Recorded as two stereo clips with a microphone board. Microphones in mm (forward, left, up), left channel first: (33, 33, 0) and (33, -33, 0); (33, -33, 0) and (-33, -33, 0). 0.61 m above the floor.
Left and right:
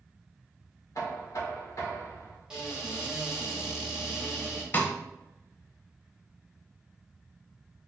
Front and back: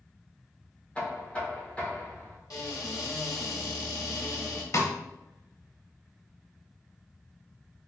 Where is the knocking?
65° left, 1.6 m.